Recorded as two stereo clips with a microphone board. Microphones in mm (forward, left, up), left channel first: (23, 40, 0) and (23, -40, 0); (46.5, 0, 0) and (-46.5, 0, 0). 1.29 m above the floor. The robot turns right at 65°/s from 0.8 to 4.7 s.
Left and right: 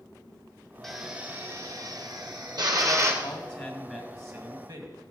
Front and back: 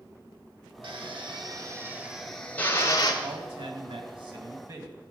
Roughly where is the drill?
Behind.